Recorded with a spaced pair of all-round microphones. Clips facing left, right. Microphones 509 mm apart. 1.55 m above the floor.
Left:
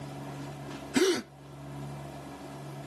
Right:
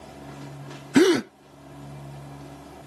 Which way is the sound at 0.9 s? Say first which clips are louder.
Right 9 dB; 80° right.